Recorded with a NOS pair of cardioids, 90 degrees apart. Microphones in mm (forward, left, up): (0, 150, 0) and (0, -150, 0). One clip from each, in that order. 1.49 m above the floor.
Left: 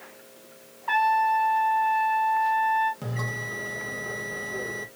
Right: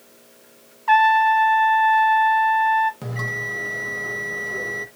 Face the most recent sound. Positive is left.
turn(degrees=-15)